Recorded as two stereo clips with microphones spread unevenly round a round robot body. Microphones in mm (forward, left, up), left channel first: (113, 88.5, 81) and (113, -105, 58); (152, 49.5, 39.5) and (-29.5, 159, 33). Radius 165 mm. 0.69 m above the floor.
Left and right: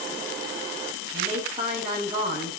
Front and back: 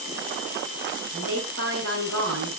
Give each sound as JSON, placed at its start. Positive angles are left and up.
{"t": 1.1, "sound": "a woman speaking", "azimuth_deg": -160, "distance_m": 7.5}